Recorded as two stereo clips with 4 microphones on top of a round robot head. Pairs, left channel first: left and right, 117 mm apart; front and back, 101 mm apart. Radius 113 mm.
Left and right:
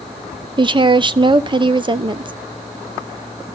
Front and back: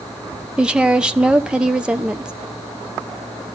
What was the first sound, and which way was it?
A woman speaking, 105° right.